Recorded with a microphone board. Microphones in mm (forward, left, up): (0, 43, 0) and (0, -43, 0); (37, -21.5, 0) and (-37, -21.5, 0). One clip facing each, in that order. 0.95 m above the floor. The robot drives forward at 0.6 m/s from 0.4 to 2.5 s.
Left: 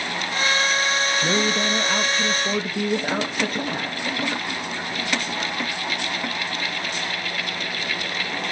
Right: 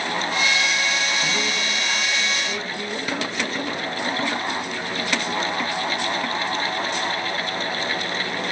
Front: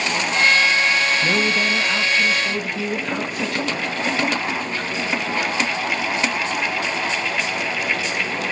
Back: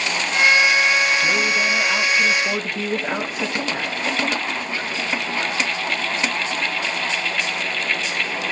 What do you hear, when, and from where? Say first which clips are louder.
1.2 s a woman speaking: left 4 dB, even; 65° left, 1.0 m; by 4.1 s 115° left, 1.0 m